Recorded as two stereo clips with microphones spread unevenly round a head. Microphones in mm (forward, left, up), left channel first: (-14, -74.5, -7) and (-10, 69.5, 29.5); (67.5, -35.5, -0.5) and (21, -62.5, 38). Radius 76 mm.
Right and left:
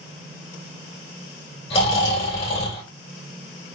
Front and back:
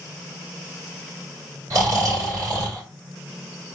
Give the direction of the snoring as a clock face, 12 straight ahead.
5 o'clock.